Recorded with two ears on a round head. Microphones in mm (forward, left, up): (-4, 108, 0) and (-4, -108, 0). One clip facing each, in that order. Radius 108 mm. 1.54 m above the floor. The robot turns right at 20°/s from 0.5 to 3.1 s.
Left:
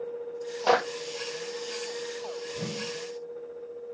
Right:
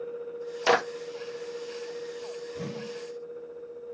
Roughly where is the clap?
Right.